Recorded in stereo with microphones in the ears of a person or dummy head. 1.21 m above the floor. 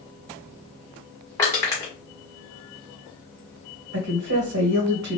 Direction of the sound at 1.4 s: 15° left (ahead or behind).